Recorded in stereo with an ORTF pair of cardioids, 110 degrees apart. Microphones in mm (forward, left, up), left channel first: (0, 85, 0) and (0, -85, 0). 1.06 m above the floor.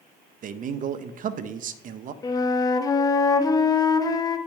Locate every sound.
0.4 s a man speaking: 50° right, 0.7 m
2.2 s a flute: 20° left, 0.8 m